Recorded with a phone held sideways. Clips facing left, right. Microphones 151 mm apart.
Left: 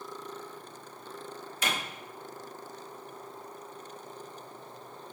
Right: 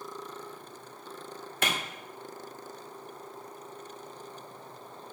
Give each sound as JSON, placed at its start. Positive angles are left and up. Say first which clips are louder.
{"t": 1.6, "sound": "a clap", "louder": "right 2 dB", "side_deg": -60, "distance_m": 1.8}